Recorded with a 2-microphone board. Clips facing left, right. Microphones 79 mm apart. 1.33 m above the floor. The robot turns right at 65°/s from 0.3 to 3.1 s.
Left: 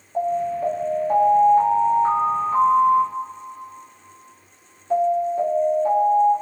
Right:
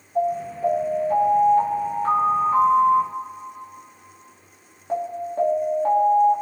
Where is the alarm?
55° left, 1.7 m; by 6.3 s 125° right, 1.7 m.